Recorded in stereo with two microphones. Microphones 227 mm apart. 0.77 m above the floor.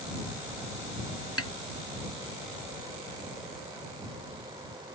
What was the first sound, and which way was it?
A snare drum, 85° left.